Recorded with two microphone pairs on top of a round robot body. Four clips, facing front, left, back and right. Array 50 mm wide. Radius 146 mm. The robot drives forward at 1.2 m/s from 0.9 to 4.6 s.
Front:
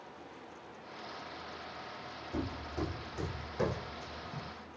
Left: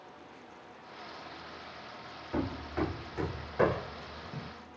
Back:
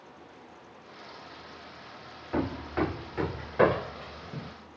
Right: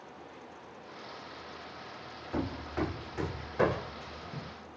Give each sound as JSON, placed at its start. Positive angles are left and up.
{"t": 2.3, "sound": "hammering", "azimuth_deg": 180}